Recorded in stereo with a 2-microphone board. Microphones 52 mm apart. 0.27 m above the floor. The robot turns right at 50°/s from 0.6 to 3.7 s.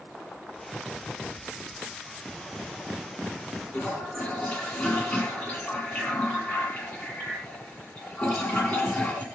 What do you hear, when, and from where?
3.7 s a toilet flushing: 40° left (ahead or behind), 9.5 m